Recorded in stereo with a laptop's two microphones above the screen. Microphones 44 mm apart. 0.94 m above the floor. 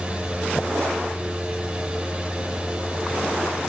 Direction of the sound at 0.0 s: 20° right (ahead or behind).